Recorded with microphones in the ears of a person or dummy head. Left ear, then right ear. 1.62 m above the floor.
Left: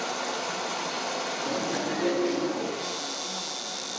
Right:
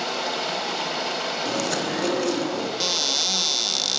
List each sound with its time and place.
0.0 s running water: 25° right (ahead or behind), 8 m
1.4 s chewing: 80° right, 9.5 m
2.8 s a cupboard door: 50° right (ahead or behind), 2 m